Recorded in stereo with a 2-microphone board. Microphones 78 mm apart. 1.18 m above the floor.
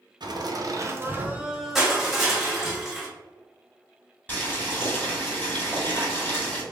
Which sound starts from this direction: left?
Boiling, at 4.3 s.